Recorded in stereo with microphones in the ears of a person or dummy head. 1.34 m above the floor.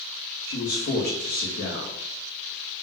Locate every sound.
0.5 s a man speaking: 75° left (ahead or behind), 2.5 m